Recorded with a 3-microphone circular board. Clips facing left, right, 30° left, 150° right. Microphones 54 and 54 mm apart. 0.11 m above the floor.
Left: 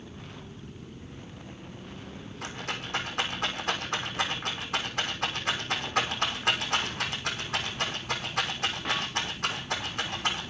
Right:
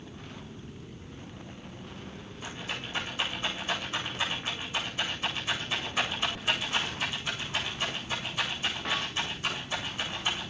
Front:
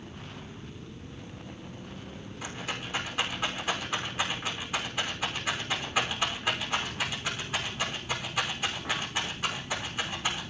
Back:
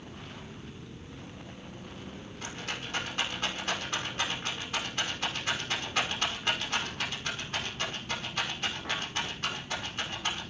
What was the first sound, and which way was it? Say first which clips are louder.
A rattle: left 2 dB, front 2 dB; 110° left.